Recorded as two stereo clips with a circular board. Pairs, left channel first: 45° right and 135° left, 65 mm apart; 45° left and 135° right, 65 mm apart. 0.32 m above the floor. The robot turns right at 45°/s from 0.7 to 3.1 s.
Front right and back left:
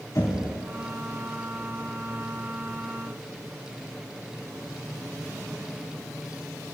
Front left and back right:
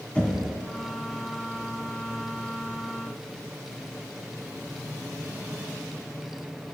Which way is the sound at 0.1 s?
25° right.